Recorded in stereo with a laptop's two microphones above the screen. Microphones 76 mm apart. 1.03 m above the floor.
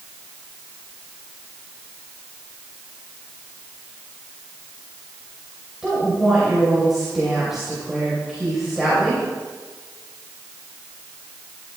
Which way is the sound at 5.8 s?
5° right (ahead or behind).